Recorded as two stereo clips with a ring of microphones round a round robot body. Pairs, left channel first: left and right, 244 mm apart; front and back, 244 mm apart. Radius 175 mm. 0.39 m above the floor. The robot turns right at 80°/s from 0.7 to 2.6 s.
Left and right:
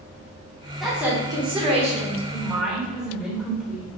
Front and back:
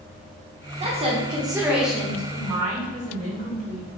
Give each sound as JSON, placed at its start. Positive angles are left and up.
{"t": 0.8, "sound": "a woman speaking", "azimuth_deg": 180, "distance_m": 1.0}
{"t": 2.3, "sound": "a woman speaking", "azimuth_deg": 155, "distance_m": 1.9}